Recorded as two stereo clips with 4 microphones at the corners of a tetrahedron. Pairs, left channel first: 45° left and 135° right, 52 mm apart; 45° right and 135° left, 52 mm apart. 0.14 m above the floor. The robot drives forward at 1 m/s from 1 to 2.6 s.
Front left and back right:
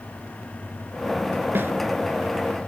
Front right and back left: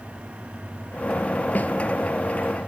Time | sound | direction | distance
1.6 | a snare drum | 95° right | 1.2 m